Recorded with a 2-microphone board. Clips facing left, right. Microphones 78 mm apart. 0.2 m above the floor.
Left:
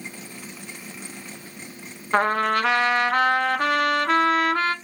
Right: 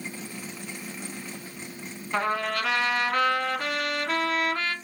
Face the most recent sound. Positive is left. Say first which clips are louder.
# left 6 dB
turn(degrees=50)  # may be behind; listen again after turning